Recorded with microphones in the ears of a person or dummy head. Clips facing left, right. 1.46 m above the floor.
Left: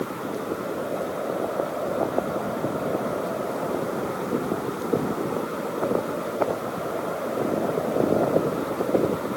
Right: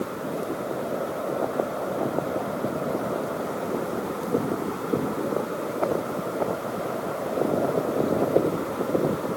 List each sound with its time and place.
Only background noise.